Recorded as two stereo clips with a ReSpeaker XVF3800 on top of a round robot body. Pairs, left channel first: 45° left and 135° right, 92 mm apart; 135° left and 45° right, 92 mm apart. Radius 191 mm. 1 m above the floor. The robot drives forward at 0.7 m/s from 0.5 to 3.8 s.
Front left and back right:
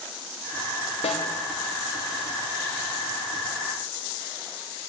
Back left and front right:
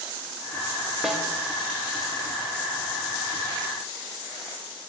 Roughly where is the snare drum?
Ahead left.